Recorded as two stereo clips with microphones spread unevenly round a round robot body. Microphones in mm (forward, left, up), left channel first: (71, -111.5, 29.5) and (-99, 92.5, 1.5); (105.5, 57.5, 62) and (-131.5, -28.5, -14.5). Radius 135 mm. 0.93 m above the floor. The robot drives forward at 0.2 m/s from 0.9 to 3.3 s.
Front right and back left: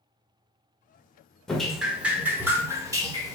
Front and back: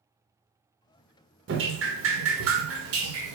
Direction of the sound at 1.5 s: 140° right.